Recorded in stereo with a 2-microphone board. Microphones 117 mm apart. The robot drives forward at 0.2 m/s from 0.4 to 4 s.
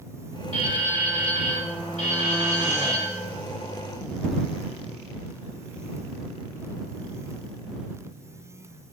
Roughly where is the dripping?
Left.